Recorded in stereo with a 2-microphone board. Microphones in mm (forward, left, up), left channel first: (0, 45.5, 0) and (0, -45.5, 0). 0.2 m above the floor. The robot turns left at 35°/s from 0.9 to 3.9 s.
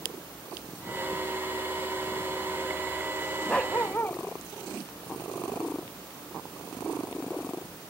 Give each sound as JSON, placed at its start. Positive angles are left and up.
{"t": 3.5, "sound": "a dog barking", "side_deg": 10}